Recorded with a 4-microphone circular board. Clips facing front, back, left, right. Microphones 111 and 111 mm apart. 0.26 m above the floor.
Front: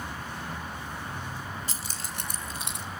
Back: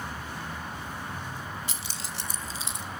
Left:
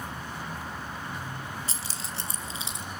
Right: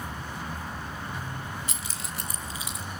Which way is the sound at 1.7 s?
40° left.